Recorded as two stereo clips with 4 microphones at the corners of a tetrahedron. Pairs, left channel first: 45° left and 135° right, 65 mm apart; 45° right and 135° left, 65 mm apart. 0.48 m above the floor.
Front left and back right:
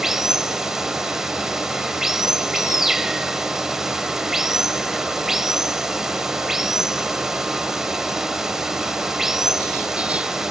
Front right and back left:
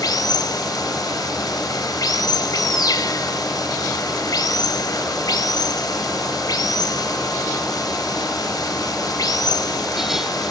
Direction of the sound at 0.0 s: 50° right.